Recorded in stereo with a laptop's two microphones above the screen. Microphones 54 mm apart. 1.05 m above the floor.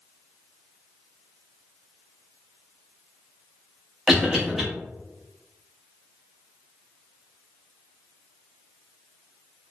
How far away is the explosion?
No explosion in this recording.